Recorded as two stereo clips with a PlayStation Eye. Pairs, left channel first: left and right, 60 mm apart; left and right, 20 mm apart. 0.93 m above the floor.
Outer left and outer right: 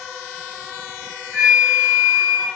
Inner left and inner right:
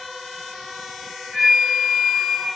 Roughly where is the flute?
Centre.